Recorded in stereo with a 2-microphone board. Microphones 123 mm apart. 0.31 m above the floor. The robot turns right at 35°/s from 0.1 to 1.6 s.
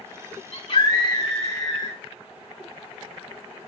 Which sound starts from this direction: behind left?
A scream, at 0.5 s.